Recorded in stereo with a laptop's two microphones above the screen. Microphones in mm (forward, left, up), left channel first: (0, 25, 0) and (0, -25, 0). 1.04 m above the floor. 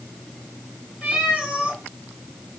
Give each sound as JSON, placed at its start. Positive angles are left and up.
{"t": 1.0, "sound": "a cat meowing", "side_deg": -20, "distance_m": 4.5}